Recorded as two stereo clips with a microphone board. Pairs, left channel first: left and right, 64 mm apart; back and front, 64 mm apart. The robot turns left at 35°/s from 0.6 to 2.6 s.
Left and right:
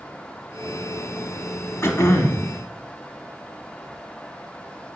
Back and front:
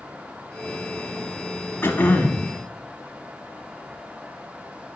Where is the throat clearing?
130° left, 0.9 m; by 2.5 s 110° left, 0.9 m.